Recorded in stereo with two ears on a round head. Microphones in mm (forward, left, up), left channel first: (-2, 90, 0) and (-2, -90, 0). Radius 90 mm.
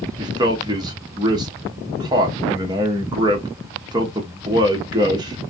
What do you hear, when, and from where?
0.2 s a man speaking: 20° right (ahead or behind), 0.7 m